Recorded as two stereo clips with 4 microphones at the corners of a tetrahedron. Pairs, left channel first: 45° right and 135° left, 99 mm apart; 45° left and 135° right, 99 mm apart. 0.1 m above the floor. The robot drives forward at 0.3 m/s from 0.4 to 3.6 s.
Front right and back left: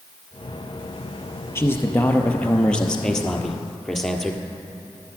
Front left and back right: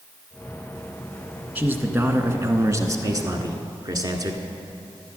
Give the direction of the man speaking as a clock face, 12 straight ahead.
3 o'clock.